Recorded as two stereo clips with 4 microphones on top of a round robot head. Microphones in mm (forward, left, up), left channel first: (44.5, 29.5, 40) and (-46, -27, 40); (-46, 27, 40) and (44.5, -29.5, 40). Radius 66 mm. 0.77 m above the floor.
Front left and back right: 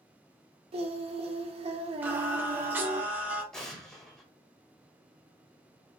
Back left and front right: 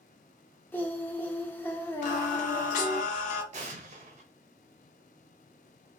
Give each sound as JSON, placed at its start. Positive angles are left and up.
{"t": 0.7, "sound": "singing", "azimuth_deg": -140, "distance_m": 0.6}
{"t": 2.0, "sound": "singing", "azimuth_deg": 135, "distance_m": 0.5}
{"t": 3.5, "sound": "an explosion", "azimuth_deg": -50, "distance_m": 0.6}